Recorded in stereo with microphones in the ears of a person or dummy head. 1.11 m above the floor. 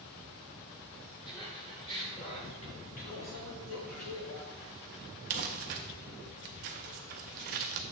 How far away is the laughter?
About 3 m.